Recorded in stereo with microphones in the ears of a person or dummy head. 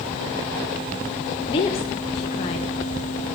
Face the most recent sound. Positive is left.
turn(degrees=25)  # may be behind; listen again after turning